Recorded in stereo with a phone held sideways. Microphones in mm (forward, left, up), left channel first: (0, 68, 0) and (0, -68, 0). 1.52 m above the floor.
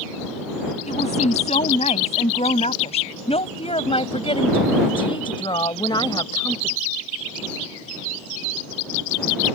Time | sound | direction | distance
0.9 | a woman speaking | 55° left (ahead or behind) | ?